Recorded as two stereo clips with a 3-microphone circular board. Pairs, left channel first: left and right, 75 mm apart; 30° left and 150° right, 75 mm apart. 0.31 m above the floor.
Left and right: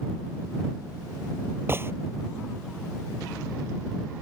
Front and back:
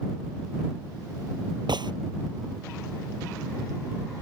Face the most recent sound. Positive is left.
turn(degrees=-150)